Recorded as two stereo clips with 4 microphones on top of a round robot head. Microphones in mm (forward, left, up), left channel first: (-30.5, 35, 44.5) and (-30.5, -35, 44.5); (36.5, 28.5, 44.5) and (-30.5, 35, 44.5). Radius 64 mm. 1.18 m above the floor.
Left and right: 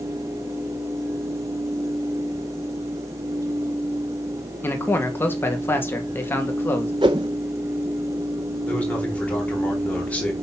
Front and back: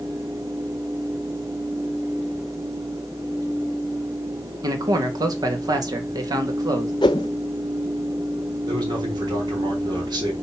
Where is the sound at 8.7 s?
160° left, 4 m.